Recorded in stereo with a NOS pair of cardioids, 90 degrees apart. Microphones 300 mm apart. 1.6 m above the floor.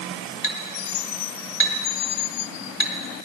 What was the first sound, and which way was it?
A clink, 45° left.